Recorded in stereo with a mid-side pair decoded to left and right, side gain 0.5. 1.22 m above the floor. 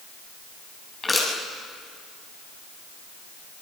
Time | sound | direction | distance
1.0 | crushing | 25° left | 7.5 m